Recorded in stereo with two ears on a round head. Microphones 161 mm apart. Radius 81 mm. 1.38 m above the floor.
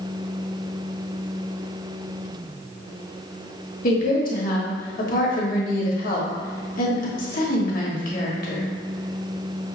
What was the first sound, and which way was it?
A woman speaking, 55° left (ahead or behind).